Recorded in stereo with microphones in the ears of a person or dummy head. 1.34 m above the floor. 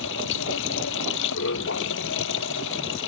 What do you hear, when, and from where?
0.0 s running water: 70° left (ahead or behind)